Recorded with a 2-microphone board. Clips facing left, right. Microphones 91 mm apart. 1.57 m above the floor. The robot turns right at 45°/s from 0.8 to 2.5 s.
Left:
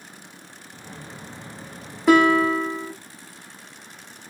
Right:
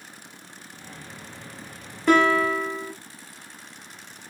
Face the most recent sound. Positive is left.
turn(degrees=25)  # may be behind; listen again after turning